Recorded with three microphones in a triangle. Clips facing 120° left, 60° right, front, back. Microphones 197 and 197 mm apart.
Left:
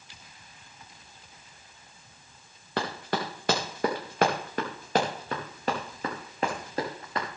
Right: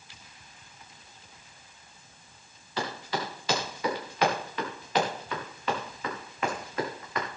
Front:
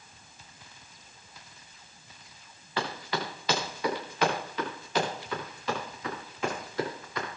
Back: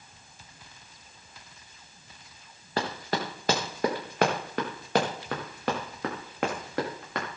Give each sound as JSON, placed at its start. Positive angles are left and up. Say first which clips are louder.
{"t": 2.8, "sound": "running footsteps", "louder": "left 2 dB, back 2 dB", "azimuth_deg": 135, "distance_m": 3.5}